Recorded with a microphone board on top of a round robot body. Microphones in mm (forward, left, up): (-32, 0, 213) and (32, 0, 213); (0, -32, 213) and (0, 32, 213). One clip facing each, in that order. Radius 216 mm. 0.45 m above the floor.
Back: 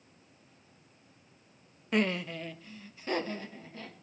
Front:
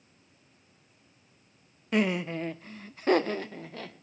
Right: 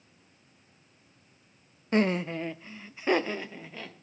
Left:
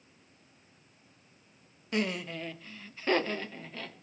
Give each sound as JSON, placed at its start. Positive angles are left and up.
{"t": 1.9, "sound": "laughter", "azimuth_deg": -90, "distance_m": 1.0}